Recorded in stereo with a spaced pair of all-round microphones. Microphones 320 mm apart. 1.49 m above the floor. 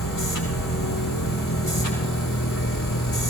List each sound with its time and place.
0.0 s a machine running: 85° left, 8 m